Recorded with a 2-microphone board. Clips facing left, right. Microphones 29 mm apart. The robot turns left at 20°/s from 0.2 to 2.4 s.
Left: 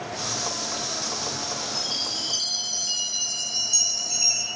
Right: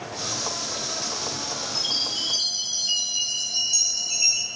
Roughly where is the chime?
Right.